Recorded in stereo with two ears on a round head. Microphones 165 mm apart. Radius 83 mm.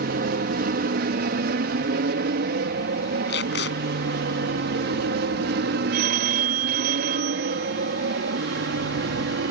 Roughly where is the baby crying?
I don't hear a baby crying.